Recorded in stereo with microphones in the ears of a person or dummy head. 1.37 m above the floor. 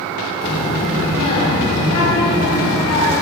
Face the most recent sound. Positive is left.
turn(degrees=30)  # may be behind; listen again after turning